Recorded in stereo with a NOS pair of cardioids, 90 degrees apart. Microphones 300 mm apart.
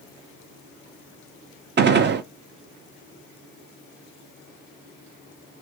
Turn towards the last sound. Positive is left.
turn(degrees=-40)